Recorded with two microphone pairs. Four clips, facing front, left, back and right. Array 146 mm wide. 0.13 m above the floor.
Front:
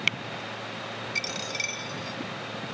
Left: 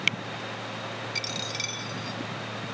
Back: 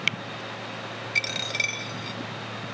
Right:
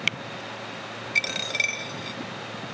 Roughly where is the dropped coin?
Behind right.